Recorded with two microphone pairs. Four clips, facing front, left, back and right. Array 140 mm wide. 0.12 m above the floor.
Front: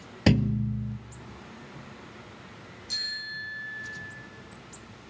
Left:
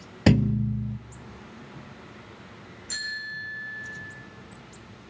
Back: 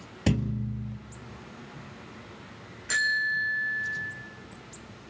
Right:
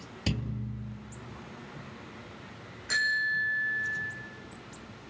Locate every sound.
0.3 s a thud: 65° left, 0.8 m
2.9 s a bicycle bell: 150° right, 4.5 m